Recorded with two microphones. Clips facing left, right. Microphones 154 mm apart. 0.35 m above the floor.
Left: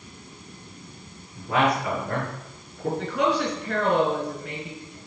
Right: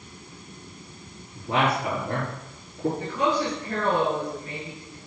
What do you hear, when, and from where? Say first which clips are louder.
1.4 s a man speaking: left 1 dB; 25° right (ahead or behind), 5 m
3.0 s a woman speaking: left 3 dB; 75° left (ahead or behind), 4.5 m